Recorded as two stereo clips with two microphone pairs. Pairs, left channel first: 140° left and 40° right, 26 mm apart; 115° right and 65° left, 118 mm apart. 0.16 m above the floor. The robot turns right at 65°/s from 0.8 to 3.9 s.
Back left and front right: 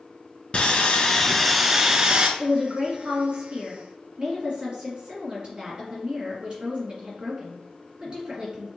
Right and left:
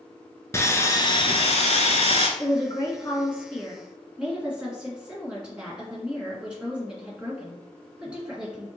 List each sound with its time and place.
0.5 s sawing: straight behind, 0.6 m; by 2.3 s 80° right, 0.6 m
2.4 s a woman speaking: 110° right, 1.8 m; by 8.7 s 10° right, 1.8 m